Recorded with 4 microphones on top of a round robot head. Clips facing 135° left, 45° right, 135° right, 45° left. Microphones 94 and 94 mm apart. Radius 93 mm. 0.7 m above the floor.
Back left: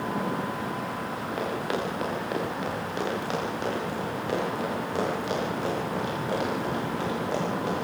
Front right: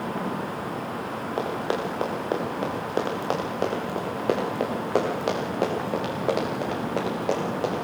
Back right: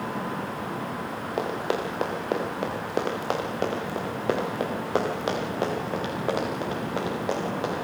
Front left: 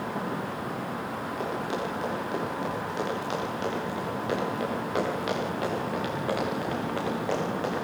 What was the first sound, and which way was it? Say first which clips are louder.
Running footsteps: front right 3 dB, back right 5 dB; 110° right.